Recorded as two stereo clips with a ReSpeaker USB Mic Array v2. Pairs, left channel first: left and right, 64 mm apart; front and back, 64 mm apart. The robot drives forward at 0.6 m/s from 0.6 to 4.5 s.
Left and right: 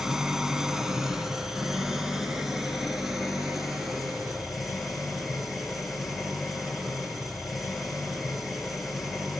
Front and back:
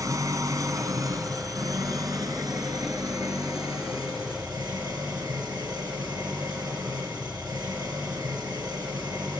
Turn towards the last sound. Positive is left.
turn(degrees=-175)